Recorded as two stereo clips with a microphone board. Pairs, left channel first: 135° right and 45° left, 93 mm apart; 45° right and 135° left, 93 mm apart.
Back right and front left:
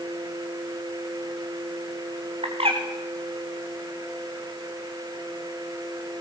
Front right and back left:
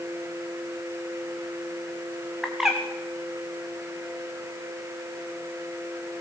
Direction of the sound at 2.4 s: 50° left.